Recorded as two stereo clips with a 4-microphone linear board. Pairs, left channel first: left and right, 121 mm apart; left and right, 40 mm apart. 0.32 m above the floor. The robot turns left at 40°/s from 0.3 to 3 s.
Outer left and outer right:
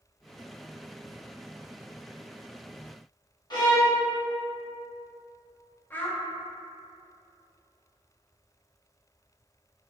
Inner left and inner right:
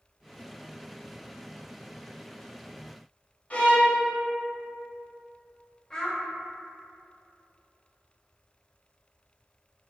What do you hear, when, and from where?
3.5 s a violin: 35° left (ahead or behind), 0.6 m
5.9 s a child speaking: 15° left (ahead or behind), 0.6 m